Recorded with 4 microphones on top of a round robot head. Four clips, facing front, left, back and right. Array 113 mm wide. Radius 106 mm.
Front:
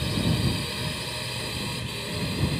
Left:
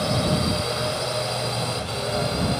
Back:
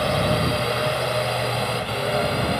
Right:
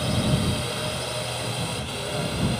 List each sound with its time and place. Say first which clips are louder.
0.0 s a drone: left 2 dB, back 7 dB; 160° left